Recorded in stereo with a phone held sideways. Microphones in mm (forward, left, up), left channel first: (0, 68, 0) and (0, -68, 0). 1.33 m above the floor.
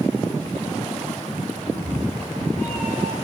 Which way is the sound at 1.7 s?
70° right (ahead or behind).